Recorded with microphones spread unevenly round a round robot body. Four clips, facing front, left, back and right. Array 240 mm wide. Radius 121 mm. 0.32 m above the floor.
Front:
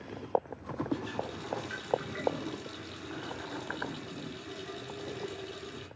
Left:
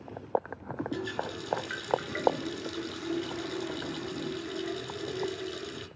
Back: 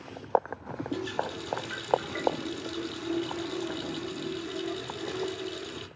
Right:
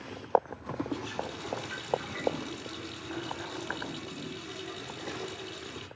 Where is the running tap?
135° left, 3.5 m.